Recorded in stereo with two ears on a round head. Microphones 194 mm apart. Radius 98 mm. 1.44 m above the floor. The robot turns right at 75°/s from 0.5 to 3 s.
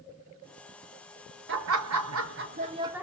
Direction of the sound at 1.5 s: 120° right.